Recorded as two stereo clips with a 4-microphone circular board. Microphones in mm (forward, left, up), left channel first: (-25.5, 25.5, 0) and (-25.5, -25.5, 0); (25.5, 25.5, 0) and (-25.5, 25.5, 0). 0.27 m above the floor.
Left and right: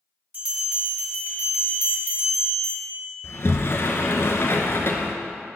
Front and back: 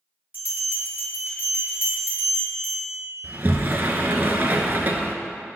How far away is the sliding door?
About 0.9 m.